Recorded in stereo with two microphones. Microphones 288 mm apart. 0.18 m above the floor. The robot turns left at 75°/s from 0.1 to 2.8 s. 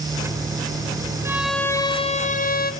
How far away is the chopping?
I don't hear chopping.